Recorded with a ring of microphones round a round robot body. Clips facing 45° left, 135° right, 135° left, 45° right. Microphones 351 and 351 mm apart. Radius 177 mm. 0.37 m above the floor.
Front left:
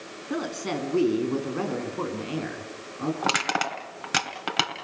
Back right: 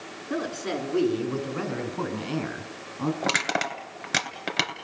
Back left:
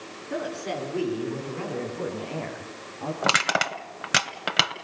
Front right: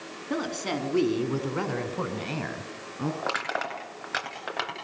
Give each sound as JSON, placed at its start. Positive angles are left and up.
{"t": 0.3, "sound": "a woman speaking", "azimuth_deg": -30, "distance_m": 4.5}
{"t": 3.2, "sound": "crushing", "azimuth_deg": 135, "distance_m": 2.5}